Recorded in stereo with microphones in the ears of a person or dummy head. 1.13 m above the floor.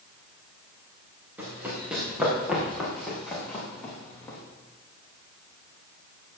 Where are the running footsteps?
5° right (ahead or behind), 5 m; by 4.4 s 15° left (ahead or behind), 5 m.